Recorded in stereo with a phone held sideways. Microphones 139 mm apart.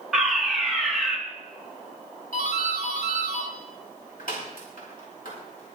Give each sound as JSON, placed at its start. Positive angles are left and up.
{"t": 0.1, "sound": "a fire alarm", "side_deg": 0, "distance_m": 2.5}
{"t": 2.3, "sound": "a doorbell", "side_deg": 80, "distance_m": 4.5}